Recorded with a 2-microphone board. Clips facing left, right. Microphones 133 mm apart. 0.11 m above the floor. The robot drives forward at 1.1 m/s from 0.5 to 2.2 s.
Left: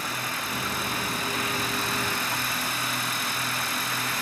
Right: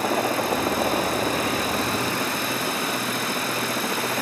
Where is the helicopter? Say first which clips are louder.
Right 11 dB; 60° right (ahead or behind).